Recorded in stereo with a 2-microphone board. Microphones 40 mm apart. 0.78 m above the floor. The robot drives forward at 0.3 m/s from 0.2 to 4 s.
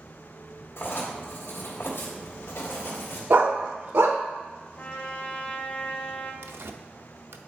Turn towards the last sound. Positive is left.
turn(degrees=-70)  # may be behind; listen again after turning